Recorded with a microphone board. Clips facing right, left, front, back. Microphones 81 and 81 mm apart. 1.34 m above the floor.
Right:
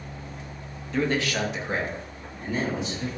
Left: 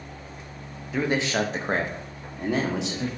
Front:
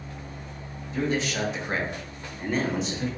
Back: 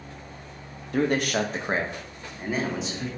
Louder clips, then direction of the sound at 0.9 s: Left 1 dB, back 3 dB; 175° left.